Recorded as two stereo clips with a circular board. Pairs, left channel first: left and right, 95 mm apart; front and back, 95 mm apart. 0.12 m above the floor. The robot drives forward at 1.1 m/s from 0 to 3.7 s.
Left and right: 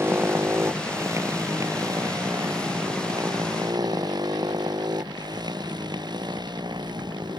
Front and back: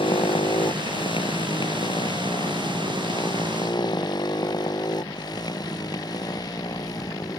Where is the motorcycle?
25° right; by 7.4 s 50° right.